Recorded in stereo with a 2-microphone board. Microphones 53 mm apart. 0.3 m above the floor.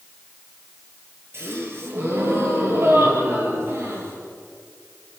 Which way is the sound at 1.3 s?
50° right (ahead or behind).